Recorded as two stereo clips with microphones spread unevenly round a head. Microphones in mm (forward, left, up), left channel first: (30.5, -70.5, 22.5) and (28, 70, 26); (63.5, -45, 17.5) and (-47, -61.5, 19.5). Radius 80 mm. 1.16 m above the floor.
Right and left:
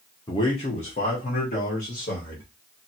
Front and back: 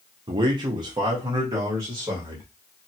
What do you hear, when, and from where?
0.3 s a man speaking: 145° right, 0.6 m; by 2.5 s 110° right, 1.9 m